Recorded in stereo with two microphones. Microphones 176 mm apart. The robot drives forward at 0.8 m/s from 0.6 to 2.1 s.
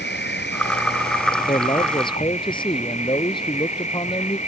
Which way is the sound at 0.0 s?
85° left.